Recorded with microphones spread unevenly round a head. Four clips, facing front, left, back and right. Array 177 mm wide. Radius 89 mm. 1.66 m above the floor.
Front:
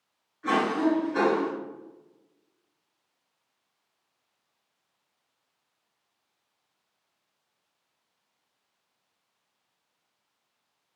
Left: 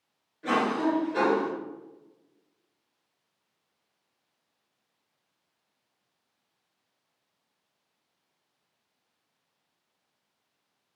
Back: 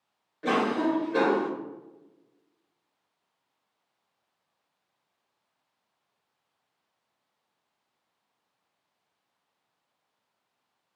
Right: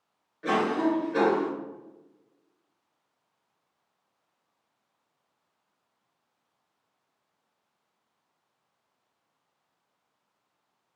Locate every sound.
0.4 s a cough: 175° right, 1.3 m